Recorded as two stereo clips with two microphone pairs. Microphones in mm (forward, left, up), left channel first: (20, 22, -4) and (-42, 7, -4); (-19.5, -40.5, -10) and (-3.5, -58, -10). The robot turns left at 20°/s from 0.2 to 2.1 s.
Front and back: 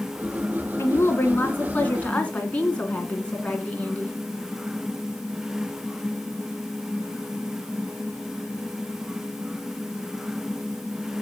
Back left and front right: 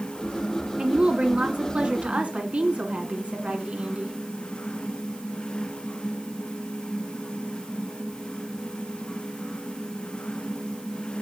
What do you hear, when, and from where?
0.8 s a woman speaking: 30° right, 2 m; by 4.2 s 55° right, 2 m